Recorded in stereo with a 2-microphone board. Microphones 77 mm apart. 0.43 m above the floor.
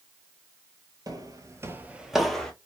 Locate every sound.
1.1 s footsteps: 55° right (ahead or behind), 0.7 m; by 2.5 s 10° left (ahead or behind), 0.7 m